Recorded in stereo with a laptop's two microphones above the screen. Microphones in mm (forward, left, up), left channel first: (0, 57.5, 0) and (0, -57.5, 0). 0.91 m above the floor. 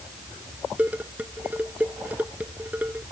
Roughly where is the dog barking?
I don't hear a dog barking.